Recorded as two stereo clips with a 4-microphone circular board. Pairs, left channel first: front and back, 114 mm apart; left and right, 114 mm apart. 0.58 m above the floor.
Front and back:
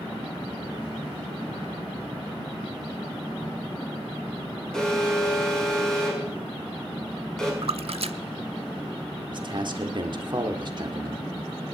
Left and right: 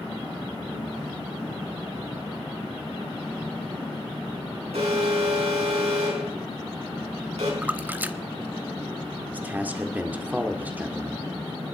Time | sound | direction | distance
4.7 | an alarm | 85° right | 5.5 m
7.6 | a splash | 165° right | 0.6 m
9.3 | a man speaking | 160° right | 1.7 m